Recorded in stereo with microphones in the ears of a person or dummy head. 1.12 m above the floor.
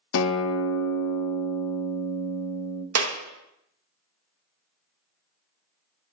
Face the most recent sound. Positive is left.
turn(degrees=-75)  # may be behind; listen again after turning